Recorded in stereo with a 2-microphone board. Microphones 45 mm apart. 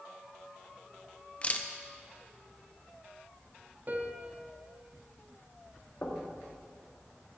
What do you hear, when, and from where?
1.4 s a camera shutter: 30° left (ahead or behind), 0.6 m
3.9 s a piano: 45° right (ahead or behind), 1.0 m
6.0 s knocking: 50° left (ahead or behind), 1.4 m